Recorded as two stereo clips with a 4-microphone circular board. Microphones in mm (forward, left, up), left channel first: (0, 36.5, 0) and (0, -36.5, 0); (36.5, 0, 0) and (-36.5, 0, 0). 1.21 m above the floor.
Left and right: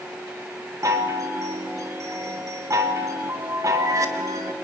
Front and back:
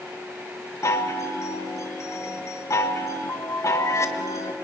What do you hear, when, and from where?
0.8 s a chime: 45° right, 1.5 m